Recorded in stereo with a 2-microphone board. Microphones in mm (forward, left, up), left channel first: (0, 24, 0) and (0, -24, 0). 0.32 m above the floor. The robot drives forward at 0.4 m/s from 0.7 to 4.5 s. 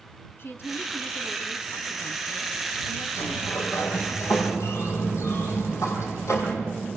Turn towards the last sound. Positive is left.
turn(degrees=70)  # may be behind; listen again after turning